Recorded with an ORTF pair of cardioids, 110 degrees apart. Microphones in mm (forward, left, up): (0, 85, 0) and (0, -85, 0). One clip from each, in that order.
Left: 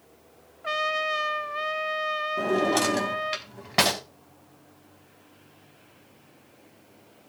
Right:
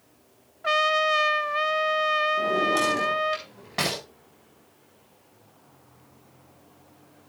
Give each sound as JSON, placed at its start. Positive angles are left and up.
{"t": 0.6, "sound": "a trumpet", "azimuth_deg": -25, "distance_m": 0.6}
{"t": 2.4, "sound": "a drawer", "azimuth_deg": 45, "distance_m": 4.5}